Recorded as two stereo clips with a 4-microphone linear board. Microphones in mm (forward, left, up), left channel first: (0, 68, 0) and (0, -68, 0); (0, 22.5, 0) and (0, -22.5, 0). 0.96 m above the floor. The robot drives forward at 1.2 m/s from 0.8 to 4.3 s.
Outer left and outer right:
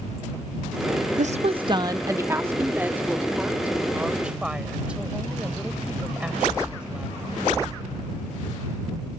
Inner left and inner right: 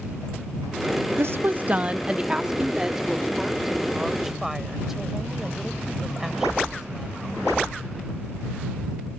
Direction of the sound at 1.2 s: 65° right (ahead or behind).